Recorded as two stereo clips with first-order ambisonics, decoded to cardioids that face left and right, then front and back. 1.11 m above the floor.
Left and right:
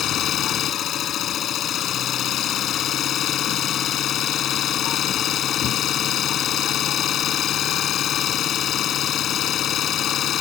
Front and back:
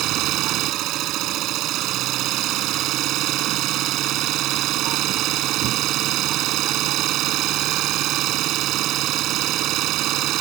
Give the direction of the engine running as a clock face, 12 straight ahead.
7 o'clock.